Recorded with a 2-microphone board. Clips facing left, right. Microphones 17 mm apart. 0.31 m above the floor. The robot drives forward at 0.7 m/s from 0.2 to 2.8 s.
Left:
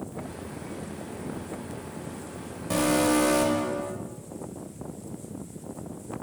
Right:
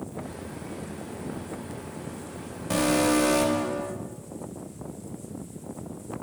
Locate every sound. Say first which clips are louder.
2.7 s an alarm: even; 10° right (ahead or behind), 1.6 m